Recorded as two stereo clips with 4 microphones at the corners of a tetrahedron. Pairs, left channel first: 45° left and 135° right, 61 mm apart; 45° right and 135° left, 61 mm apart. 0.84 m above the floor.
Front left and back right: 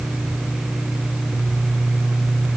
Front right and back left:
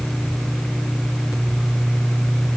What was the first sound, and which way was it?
Only background noise.